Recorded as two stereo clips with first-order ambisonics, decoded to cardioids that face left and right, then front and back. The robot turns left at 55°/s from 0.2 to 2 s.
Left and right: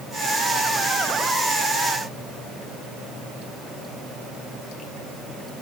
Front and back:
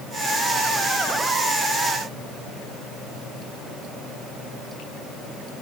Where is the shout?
I don't hear a shout.